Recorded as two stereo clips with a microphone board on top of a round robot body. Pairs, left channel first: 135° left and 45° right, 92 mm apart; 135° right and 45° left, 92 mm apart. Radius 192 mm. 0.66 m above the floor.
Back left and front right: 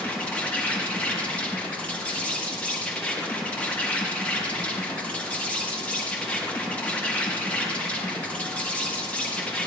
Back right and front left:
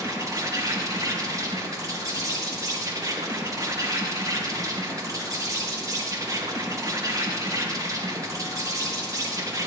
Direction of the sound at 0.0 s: 65° left.